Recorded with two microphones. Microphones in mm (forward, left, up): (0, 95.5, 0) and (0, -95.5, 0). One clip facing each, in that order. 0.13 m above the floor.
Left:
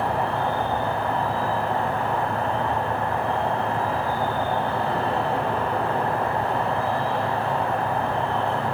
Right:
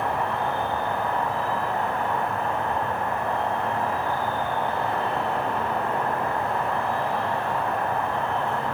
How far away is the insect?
About 1.8 m.